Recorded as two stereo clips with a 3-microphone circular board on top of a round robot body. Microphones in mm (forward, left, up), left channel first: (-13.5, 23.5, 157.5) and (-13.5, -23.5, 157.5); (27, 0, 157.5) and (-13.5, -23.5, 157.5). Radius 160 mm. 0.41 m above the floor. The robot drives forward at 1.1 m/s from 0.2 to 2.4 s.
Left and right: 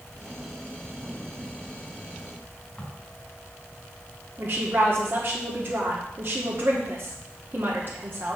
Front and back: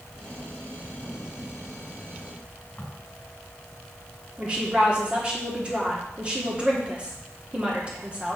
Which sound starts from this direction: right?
A woman speaking, at 4.4 s.